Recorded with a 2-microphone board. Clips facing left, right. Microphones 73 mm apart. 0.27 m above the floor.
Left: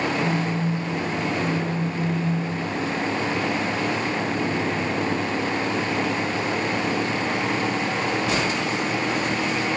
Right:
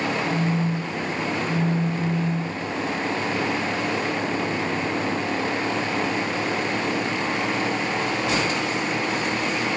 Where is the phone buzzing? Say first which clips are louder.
Even; 50° left (ahead or behind), 5 m.